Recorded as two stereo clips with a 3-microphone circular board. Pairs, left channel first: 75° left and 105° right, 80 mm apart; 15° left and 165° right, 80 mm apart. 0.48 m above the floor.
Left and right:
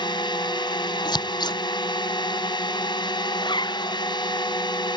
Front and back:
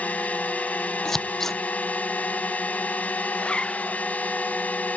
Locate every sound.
0.0 s a drone: 85° left
1.1 s scissors: 100° left
3.3 s a zipper: 95° left